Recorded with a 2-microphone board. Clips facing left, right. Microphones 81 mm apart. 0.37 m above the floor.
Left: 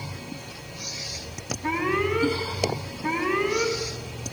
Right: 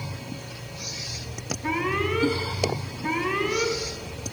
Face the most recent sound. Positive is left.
turn(degrees=10)  # may be behind; listen again after turning